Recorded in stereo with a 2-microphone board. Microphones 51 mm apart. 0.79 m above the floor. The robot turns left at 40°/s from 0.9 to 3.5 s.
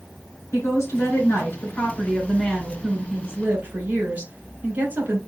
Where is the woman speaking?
65° left, 3 m; by 5.2 s 35° right, 3 m.